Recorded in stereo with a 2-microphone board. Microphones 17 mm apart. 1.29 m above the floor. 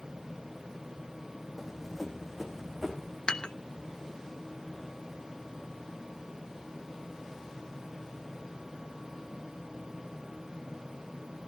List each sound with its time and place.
1.6 s running footsteps: 5° left (ahead or behind), 3 m; by 3.2 s 15° left (ahead or behind), 5 m
3.3 s dishes clattering: 70° left (ahead or behind), 1.1 m